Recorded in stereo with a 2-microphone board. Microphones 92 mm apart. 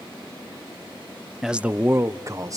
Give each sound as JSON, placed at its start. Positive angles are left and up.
{"t": 1.4, "sound": "a man speaking", "side_deg": -5, "distance_m": 0.6}